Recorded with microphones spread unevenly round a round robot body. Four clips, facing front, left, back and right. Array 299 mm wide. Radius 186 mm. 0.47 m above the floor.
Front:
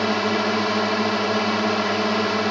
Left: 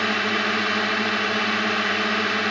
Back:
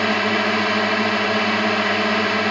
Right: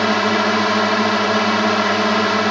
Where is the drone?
70° right.